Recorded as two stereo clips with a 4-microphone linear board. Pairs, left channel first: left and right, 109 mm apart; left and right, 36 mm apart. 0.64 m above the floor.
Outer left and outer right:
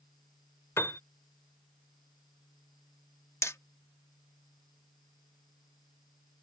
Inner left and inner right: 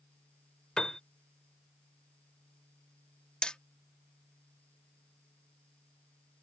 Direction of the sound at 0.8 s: 25° left (ahead or behind).